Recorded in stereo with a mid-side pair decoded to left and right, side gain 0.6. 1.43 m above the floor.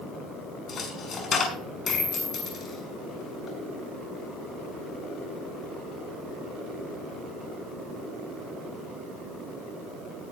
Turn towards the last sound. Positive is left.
turn(degrees=40)